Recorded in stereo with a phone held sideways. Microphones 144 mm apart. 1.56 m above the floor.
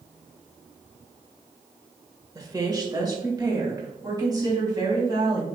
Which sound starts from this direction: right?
A woman speaking, at 2.4 s.